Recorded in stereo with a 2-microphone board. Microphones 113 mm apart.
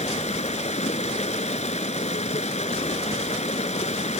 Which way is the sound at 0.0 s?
80° left.